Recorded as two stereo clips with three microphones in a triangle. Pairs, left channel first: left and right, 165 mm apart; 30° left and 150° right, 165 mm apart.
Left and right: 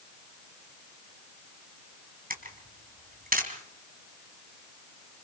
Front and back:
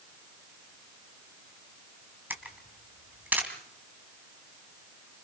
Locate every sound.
2.3 s a camera shutter: 70° right, 3 m